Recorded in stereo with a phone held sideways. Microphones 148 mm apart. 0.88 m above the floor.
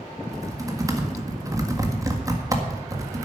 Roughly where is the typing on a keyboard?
Right.